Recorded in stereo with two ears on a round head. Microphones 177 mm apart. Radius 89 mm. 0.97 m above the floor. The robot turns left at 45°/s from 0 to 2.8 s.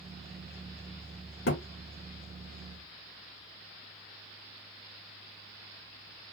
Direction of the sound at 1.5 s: 60° left (ahead or behind).